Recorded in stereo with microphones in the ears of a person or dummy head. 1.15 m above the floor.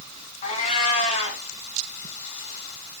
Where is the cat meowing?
40° left (ahead or behind), 3 m.